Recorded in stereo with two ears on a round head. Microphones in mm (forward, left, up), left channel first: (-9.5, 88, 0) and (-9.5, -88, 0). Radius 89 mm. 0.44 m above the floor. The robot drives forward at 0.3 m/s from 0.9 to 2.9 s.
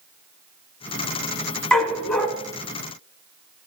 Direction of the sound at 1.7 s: 5° left (ahead or behind).